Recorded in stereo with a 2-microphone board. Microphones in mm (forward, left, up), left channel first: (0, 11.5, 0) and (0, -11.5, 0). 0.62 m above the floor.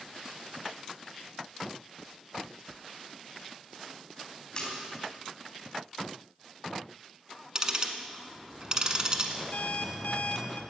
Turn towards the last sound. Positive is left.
turn(degrees=70)  # may be behind; listen again after turning